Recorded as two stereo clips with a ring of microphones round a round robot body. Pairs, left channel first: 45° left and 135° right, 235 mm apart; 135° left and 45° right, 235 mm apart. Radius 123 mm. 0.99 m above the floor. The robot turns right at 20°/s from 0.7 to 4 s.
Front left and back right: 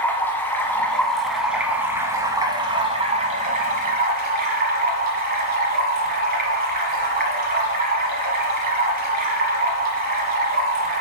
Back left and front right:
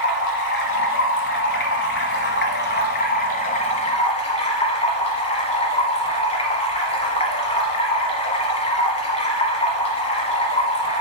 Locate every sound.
0.0 s running water: 125° left, 1.1 m; by 11.0 s 170° right, 1.1 m